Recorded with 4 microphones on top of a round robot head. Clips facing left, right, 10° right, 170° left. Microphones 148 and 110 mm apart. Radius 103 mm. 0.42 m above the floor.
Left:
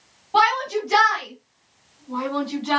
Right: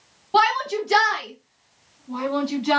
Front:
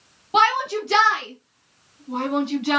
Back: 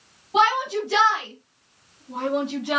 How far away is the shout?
About 4.5 m.